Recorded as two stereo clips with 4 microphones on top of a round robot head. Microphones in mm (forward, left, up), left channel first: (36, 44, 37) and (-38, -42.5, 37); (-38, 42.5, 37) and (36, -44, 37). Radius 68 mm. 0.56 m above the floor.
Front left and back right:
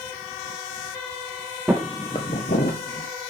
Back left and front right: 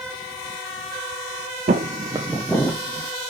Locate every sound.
1.7 s footsteps: 45° right, 0.8 m; by 3.1 s 70° left, 1.2 m